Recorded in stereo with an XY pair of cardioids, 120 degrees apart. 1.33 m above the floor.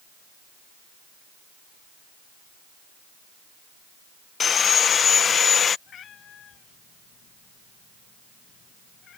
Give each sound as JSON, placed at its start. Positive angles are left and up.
{"t": 4.4, "sound": "sawing", "azimuth_deg": 40}
{"t": 5.9, "sound": "a cat meowing", "azimuth_deg": 55}